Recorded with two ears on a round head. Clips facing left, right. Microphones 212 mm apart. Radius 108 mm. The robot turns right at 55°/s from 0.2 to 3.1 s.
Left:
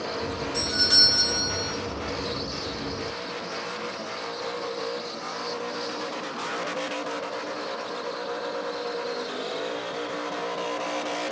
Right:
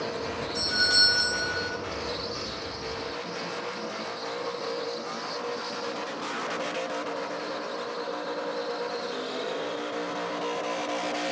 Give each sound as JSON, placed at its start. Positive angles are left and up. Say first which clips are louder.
{"t": 0.5, "sound": "a doorbell", "louder": "left 3 dB", "side_deg": 20, "distance_m": 1.8}